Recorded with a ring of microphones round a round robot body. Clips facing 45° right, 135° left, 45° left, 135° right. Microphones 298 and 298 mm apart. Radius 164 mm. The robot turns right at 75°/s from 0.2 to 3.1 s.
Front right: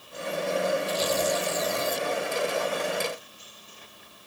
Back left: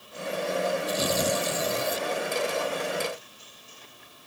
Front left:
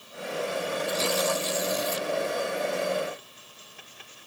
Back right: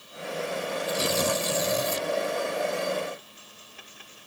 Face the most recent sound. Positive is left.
turn(degrees=-55)